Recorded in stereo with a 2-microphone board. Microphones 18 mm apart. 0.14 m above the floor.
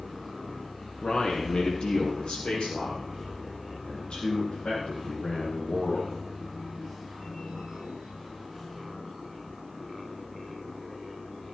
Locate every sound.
1.0 s a man speaking: 60° left (ahead or behind), 4.5 m; by 6.2 s 65° left (ahead or behind), 6.5 m